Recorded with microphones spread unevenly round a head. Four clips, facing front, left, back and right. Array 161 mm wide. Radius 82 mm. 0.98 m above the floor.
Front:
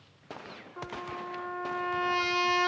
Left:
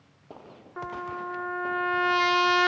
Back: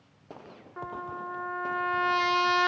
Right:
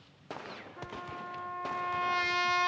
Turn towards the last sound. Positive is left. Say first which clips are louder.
# left 9 dB, back 2 dB
turn(degrees=95)